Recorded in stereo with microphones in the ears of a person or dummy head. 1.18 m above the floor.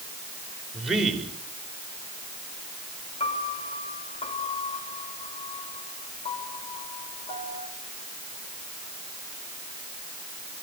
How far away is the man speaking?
About 6 m.